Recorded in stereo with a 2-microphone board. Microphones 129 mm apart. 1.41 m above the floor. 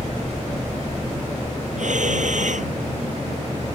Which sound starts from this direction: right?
Breathing, at 1.8 s.